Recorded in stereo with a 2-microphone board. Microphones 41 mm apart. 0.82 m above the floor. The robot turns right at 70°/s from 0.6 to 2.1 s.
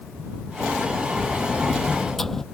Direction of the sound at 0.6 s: 100° right.